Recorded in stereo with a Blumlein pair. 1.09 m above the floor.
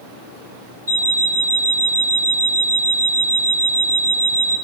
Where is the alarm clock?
70° right, 1.4 m.